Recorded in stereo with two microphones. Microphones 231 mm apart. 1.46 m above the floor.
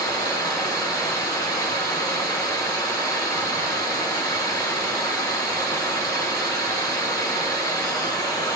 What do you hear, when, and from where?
0.0 s running water: 20° left (ahead or behind), 3.5 m